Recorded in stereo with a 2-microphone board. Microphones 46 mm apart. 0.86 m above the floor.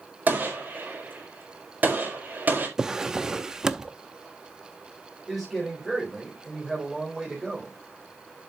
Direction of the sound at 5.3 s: Centre (ahead or behind).